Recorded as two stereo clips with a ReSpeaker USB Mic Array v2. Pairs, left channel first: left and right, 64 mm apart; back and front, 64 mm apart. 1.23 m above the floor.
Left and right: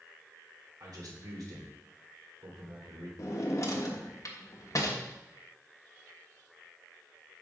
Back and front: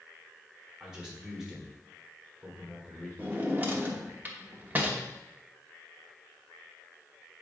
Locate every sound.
0.8 s a man speaking: 80° right, 3 m
3.2 s a drawer: 60° left, 1.0 m